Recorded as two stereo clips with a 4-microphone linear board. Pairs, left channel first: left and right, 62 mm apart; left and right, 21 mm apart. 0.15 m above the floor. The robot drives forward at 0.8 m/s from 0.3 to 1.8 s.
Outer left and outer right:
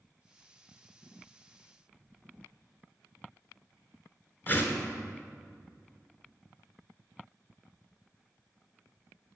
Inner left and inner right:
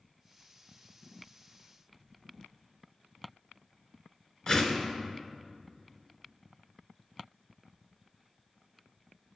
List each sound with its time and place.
4.5 s a whoosh: 35° left (ahead or behind), 0.6 m